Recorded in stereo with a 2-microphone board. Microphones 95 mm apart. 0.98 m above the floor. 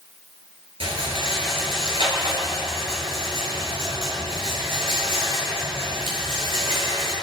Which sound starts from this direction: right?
A rattle, at 0.8 s.